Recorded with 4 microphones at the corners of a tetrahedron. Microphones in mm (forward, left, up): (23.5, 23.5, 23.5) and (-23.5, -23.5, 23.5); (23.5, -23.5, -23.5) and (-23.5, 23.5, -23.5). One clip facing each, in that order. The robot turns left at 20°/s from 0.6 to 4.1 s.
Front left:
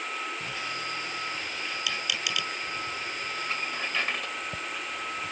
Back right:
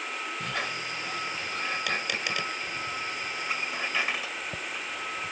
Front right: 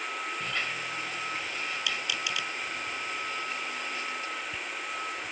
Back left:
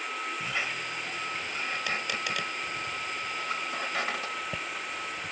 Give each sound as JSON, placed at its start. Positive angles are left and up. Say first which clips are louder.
{"t": 0.4, "sound": "a squeak", "louder": "back right 2 dB, back left 1 dB", "azimuth_deg": -150}